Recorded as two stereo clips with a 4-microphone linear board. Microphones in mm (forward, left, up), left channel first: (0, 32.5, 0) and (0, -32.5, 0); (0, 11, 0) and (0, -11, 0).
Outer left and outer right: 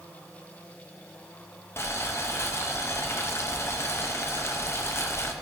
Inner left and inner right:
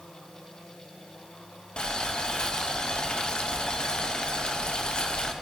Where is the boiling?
45° left (ahead or behind), 0.9 m.